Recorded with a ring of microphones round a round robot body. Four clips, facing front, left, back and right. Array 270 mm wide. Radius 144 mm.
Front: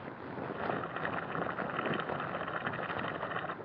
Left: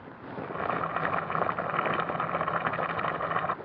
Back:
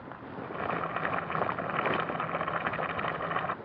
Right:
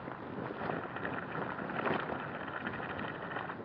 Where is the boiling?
110° left.